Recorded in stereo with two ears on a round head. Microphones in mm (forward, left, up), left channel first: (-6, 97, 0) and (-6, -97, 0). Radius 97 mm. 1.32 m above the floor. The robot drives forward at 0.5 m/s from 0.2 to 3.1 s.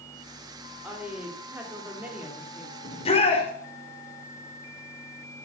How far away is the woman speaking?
About 4 m.